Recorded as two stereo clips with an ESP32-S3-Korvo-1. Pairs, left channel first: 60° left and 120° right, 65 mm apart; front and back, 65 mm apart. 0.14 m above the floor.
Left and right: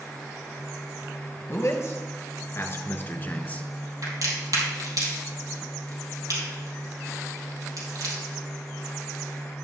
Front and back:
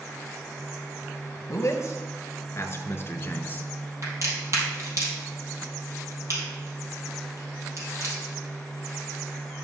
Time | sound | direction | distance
1.5 | a man speaking | 30° left | 2.5 m
4.0 | a crack | 140° right | 4 m